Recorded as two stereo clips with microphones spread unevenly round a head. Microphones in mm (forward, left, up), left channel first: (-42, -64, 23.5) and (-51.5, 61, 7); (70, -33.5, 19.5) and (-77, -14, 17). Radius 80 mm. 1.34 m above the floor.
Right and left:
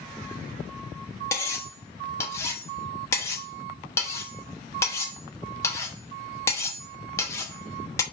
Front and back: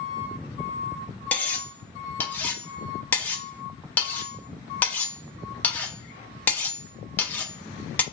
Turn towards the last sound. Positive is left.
turn(degrees=-70)